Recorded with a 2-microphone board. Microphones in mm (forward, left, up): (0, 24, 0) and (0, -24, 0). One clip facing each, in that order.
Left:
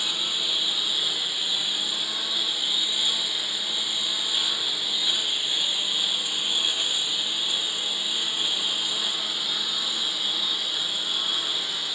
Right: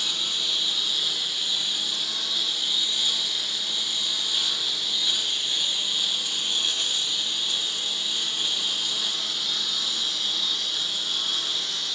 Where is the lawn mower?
15° left (ahead or behind).